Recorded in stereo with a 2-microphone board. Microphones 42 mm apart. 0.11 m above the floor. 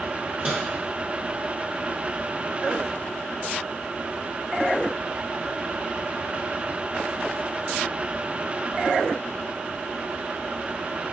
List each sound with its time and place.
0.4 s a microwave: 30° right (ahead or behind), 1.5 m